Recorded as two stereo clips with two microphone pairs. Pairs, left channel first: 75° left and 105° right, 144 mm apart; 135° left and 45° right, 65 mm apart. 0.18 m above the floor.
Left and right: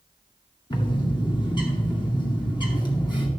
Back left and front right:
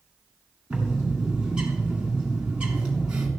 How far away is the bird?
About 2.0 m.